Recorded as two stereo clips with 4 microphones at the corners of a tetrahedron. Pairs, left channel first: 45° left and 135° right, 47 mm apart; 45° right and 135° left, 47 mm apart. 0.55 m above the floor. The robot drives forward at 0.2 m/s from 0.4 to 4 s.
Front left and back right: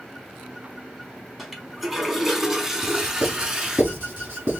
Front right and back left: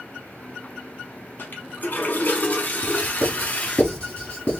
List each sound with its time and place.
1.4 s a toilet flushing: 50° right, 1.3 m; by 3.8 s 80° right, 1.2 m
2.8 s writing: 105° right, 1.7 m; by 4.6 s 110° right, 1.8 m